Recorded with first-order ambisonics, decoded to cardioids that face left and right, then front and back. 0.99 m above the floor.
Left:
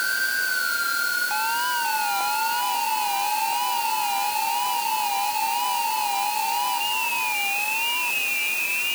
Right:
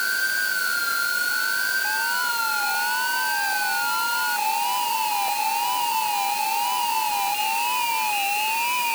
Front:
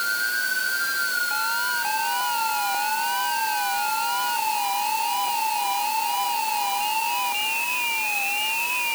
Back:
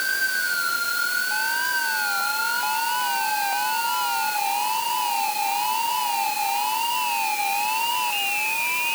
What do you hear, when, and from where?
Only background noise.